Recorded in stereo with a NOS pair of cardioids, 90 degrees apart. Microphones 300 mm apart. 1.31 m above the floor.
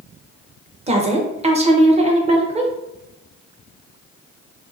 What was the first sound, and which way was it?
A woman speaking, 20° right.